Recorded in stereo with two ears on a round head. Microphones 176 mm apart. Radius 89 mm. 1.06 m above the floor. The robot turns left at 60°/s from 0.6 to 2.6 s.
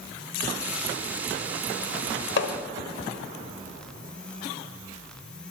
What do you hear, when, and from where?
2.4 s hammering: 65° left (ahead or behind), 1.5 m